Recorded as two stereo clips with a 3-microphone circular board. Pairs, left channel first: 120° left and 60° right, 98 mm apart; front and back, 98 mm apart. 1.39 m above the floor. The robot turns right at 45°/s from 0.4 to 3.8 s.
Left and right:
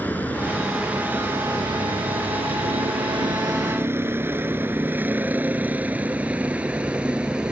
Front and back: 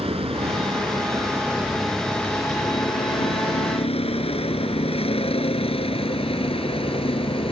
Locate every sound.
0.0 s a vehicle: 165° right; by 7.5 s 20° left